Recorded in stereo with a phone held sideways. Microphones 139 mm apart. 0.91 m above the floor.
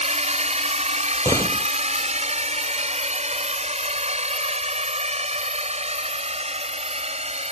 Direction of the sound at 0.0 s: 55° right (ahead or behind).